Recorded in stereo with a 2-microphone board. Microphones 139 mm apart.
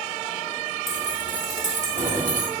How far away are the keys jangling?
About 3.5 m.